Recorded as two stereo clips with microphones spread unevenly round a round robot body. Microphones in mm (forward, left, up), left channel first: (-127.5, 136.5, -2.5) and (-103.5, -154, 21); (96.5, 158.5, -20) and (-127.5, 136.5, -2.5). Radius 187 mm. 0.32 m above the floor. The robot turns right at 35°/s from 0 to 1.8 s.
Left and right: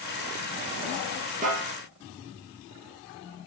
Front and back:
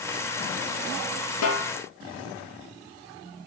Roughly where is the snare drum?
Ahead.